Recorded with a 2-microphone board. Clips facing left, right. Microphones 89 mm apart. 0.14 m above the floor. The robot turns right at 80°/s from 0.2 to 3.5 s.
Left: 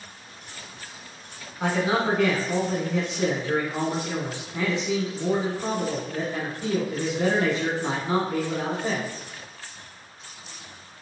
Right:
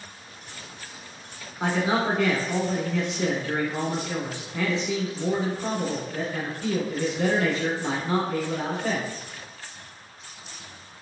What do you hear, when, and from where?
1.6 s a man speaking: 10° right (ahead or behind), 1.1 m; by 9.1 s 20° left (ahead or behind), 1.1 m